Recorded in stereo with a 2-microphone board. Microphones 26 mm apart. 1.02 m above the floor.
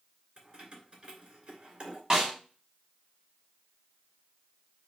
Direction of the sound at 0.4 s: 35° right (ahead or behind).